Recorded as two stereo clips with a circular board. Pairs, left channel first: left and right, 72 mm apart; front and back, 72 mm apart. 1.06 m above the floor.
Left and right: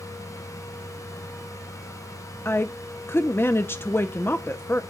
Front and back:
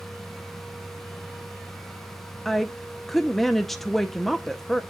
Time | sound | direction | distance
2.5 | a woman speaking | 85° left | 0.5 m